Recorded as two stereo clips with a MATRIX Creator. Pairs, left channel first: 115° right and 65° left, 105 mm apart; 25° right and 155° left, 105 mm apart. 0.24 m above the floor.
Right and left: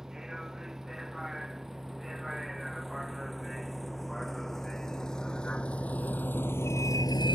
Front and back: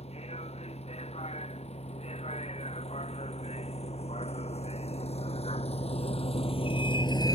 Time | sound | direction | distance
0.0 | a vehicle | 20° right | ?